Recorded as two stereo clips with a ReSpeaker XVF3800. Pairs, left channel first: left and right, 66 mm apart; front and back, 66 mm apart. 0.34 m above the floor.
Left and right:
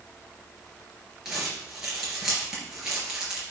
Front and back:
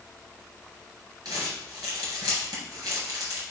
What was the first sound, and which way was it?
Crumpling, 170° right.